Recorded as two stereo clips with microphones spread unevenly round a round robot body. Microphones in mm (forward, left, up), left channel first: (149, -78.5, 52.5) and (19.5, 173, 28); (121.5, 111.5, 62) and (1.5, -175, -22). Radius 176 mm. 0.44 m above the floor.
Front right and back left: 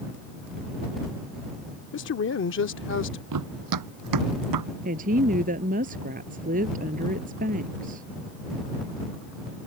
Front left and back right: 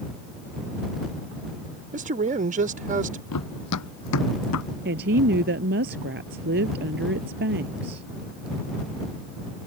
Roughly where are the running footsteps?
Left.